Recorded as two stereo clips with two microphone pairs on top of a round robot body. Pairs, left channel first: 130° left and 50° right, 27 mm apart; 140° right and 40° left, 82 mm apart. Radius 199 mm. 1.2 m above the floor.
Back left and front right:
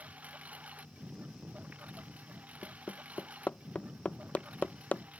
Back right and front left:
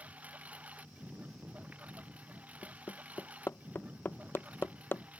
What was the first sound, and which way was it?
A lawn mower, 30° right.